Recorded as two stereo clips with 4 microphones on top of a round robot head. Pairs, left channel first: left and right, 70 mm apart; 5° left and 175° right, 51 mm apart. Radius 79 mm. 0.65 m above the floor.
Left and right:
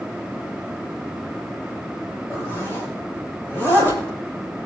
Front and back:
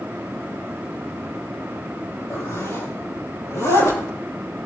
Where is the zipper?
30° left, 9 m.